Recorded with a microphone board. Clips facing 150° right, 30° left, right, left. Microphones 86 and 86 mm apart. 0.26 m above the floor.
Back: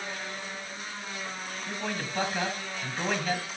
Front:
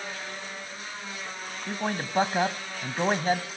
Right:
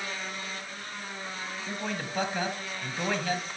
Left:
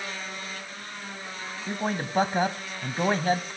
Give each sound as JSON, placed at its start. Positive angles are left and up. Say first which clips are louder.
{"t": 1.7, "sound": "a man speaking", "louder": "front 4 dB, left 6 dB", "azimuth_deg": 65, "distance_m": 1.4}